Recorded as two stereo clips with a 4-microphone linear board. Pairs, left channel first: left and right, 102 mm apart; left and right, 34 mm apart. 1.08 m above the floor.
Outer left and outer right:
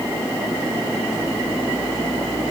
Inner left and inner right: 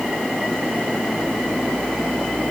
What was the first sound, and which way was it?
Only background noise.